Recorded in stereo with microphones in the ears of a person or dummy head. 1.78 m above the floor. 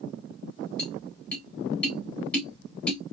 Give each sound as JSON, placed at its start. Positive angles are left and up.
{"t": 0.8, "sound": "tapping", "side_deg": 5, "distance_m": 2.0}